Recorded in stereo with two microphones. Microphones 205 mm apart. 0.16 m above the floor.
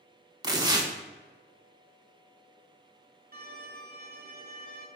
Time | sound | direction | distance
0.4 | tearing paper | 20° right (ahead or behind) | 0.5 m
3.3 | a violin | 50° right (ahead or behind) | 0.6 m